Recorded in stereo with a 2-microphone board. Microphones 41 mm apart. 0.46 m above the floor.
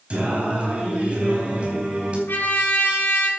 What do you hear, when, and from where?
0.1 s singing: 30° right (ahead or behind), 4 m
2.3 s a trumpet: 50° left (ahead or behind), 6 m